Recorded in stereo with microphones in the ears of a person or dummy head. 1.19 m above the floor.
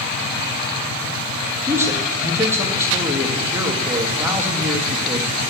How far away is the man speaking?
About 1.6 m.